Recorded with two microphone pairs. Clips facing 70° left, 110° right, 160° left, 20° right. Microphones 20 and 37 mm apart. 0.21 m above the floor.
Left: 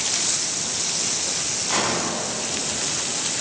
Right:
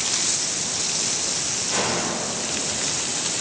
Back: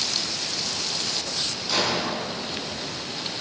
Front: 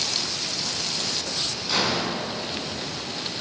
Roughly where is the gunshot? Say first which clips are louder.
Left 1 dB, even; ahead left.